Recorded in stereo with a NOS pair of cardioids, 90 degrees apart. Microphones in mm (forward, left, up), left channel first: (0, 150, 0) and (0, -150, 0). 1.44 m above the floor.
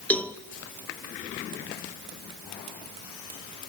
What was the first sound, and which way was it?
A cowbell, 5° left.